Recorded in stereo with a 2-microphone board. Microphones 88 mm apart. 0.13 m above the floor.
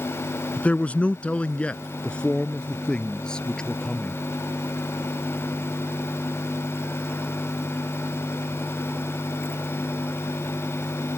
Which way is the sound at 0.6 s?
15° left (ahead or behind).